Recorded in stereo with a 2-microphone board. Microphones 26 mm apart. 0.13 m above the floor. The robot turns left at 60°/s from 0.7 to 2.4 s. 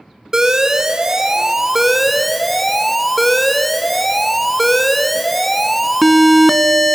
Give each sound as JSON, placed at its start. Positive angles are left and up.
{"t": 0.3, "sound": "an alarm", "side_deg": -20, "distance_m": 0.8}